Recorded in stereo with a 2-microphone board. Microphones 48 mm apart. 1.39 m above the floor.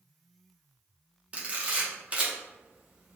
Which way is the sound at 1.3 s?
30° right (ahead or behind).